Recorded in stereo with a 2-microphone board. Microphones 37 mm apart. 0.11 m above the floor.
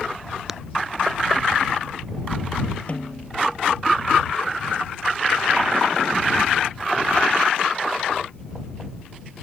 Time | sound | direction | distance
0.5 | tapping | 15° right (ahead or behind) | ?
2.9 | a snare drum | 40° left (ahead or behind) | ?